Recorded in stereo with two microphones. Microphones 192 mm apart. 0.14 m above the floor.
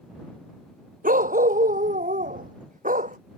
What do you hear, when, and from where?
1.0 s a dog barking: 50° right (ahead or behind); by 3.2 s 45° right (ahead or behind)